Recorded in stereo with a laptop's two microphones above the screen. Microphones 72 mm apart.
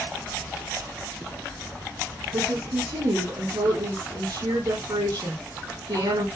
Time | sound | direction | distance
2.3 | a woman speaking | 75° right (ahead or behind) | 4.5 m